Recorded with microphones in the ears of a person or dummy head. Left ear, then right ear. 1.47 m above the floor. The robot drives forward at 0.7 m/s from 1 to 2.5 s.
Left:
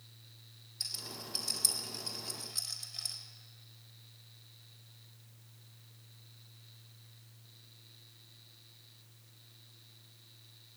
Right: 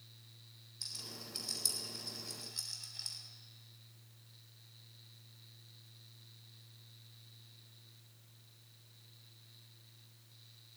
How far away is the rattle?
About 4 m.